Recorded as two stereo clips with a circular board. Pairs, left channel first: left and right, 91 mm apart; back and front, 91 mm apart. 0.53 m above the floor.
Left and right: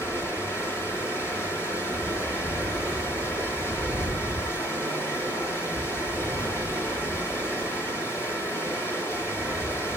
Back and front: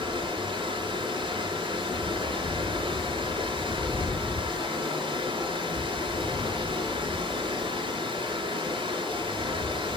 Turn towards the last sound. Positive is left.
turn(degrees=25)